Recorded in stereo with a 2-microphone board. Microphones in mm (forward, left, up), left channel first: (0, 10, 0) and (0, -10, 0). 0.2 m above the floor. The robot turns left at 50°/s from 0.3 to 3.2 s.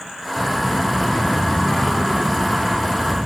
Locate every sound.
0.4 s a child speaking: straight behind, 1.8 m; by 3.3 s 35° left, 1.8 m